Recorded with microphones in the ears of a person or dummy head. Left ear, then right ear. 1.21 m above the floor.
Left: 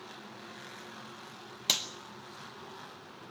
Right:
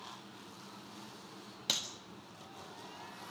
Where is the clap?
20° left (ahead or behind), 1.5 m.